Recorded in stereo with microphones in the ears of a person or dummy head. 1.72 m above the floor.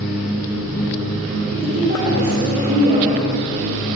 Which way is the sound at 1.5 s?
35° right (ahead or behind).